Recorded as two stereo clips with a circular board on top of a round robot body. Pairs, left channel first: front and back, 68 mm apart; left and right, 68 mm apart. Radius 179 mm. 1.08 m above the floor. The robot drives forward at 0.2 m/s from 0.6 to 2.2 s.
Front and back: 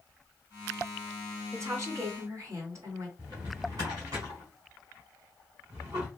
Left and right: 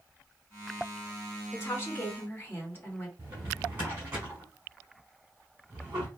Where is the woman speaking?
140° left, 1.5 m; by 3.1 s 145° left, 1.5 m.